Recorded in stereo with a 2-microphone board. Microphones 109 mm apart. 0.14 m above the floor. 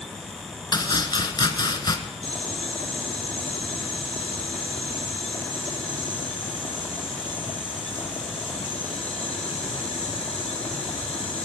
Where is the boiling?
55° left (ahead or behind), 2.5 m.